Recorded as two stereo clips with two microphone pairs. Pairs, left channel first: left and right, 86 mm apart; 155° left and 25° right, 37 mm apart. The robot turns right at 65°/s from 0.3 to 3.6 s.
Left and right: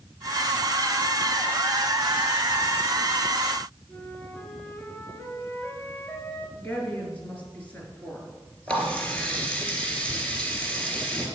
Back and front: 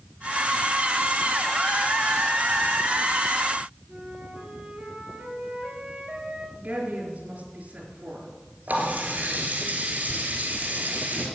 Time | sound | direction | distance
3.9 | a flute | 25° left | 3 m
6.5 | a woman speaking | 20° left | 4 m
8.7 | a running tap | 15° left | 3 m